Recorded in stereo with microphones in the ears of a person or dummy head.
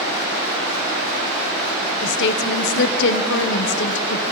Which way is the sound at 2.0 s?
65° left (ahead or behind).